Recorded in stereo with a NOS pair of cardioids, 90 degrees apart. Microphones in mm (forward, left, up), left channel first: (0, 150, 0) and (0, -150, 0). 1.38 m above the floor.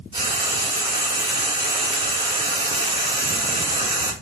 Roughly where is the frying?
Ahead.